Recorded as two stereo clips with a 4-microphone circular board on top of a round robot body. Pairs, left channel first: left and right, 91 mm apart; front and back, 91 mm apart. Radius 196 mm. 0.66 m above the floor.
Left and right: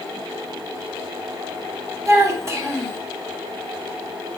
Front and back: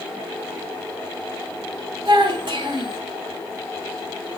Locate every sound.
2.0 s a child speaking: 145° right, 3.5 m